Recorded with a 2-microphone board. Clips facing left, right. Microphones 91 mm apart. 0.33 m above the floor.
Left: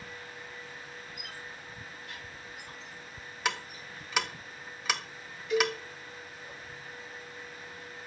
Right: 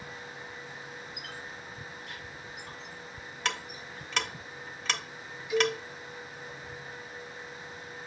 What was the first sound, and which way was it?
A squeak, 80° right.